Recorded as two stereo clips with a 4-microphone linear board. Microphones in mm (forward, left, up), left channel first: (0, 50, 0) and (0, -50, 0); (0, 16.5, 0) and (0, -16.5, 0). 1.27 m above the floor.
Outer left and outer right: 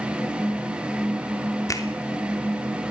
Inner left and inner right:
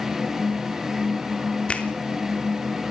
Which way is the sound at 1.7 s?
35° left (ahead or behind).